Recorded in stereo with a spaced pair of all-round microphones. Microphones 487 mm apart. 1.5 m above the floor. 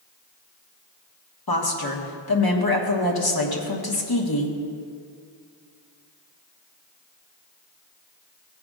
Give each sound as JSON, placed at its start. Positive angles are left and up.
{"t": 1.5, "sound": "a woman speaking", "side_deg": 50, "distance_m": 1.5}